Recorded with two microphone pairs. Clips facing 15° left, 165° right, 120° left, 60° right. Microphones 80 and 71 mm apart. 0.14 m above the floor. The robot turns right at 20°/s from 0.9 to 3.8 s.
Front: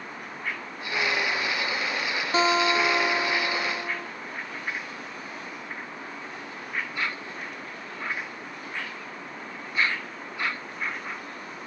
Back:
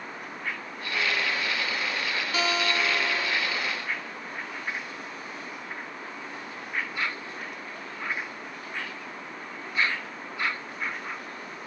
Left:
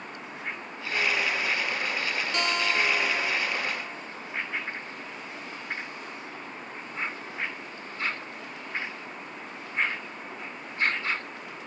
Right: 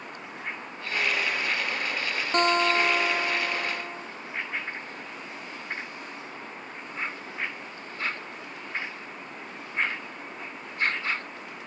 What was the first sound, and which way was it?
A guitar, 35° right.